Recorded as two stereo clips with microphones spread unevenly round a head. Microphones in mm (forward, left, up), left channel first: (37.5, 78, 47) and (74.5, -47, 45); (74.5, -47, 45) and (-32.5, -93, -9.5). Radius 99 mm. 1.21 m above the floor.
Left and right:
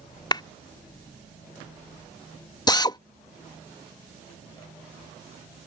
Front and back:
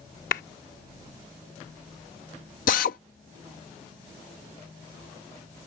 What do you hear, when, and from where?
0.3 s a clap: 50° left
2.7 s a drill: 45° left